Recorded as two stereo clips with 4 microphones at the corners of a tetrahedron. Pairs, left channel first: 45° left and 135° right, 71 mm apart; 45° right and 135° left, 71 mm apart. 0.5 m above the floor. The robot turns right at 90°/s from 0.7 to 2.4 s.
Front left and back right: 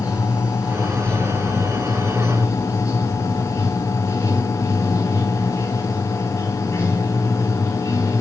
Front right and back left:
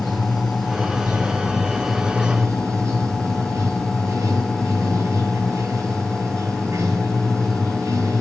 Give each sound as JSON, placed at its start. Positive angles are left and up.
{"t": 0.0, "sound": "running water", "azimuth_deg": -65, "distance_m": 5.5}